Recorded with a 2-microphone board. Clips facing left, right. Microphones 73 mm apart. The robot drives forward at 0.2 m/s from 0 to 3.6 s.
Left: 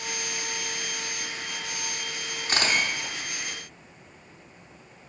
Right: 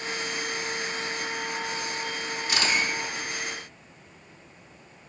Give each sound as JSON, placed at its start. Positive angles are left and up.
{"t": 2.5, "sound": "a camera shutter", "side_deg": 45, "distance_m": 0.8}